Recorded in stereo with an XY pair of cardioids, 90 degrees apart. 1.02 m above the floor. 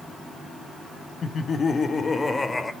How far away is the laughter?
About 1.0 m.